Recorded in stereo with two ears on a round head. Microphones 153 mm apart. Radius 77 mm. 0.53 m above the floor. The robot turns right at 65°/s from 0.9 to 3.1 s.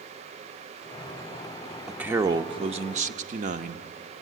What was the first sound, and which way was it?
A man speaking, 175° right.